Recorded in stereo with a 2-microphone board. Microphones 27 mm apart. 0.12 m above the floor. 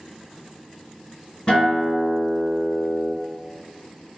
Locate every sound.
1.5 s a guitar: 35° left (ahead or behind), 1.6 m